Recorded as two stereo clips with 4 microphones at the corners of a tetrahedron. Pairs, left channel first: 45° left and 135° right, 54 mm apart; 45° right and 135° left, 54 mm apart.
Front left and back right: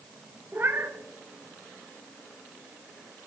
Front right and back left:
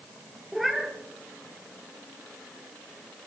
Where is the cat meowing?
135° right, 0.9 m.